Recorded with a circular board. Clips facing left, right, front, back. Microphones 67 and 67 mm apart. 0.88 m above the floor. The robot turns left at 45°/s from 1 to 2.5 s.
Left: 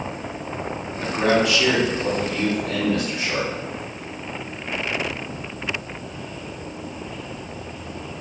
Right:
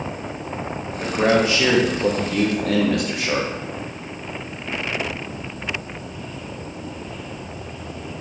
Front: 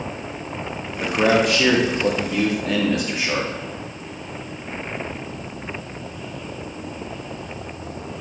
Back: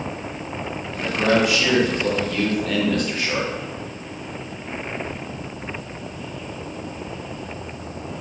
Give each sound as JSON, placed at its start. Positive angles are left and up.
{"t": 1.0, "sound": "a man speaking", "azimuth_deg": -10, "distance_m": 0.9}